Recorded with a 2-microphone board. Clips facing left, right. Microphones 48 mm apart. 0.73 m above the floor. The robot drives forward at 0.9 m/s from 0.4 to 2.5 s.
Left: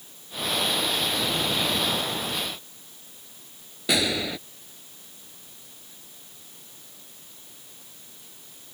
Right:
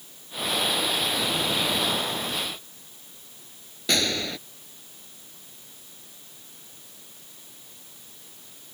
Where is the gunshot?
5° left (ahead or behind).